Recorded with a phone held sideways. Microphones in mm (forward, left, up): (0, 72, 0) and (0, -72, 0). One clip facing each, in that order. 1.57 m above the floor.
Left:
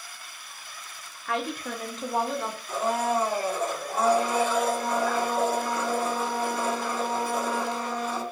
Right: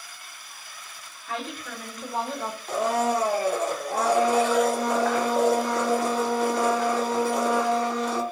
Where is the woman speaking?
65° left (ahead or behind), 0.7 m; by 2.6 s 15° right (ahead or behind), 0.6 m.